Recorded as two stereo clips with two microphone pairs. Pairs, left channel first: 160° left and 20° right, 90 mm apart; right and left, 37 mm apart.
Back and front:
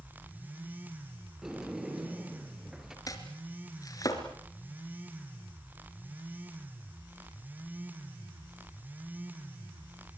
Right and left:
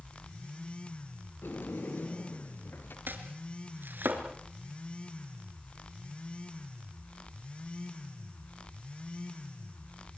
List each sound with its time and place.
1.4 s a sliding door: 105° right, 3.5 m
3.1 s chopping: 110° left, 3.5 m